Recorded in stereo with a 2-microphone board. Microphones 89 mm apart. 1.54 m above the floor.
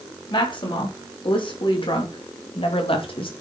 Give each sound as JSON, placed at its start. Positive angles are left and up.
{"t": 0.3, "sound": "a woman speaking", "side_deg": 65, "distance_m": 4.0}